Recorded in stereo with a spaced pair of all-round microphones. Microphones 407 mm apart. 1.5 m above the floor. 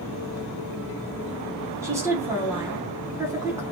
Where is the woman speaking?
5° right (ahead or behind), 0.8 m.